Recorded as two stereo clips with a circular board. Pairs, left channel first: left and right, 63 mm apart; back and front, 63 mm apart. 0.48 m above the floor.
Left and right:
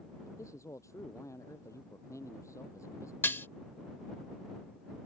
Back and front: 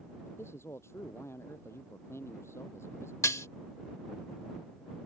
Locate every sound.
0.2 s a man speaking: 130° left
3.2 s dishes clattering: 145° left